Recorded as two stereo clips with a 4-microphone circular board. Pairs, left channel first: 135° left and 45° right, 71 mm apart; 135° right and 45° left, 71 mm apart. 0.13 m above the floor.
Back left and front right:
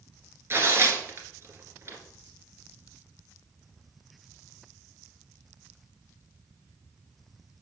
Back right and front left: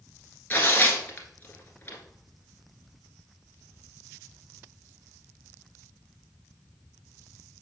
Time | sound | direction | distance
0.5 | tearing paper | 80° right | 1.6 m